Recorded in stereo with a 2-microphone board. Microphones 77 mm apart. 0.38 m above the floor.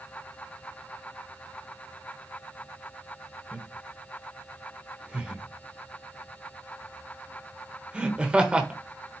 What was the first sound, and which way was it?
Laughter, 15° right (ahead or behind).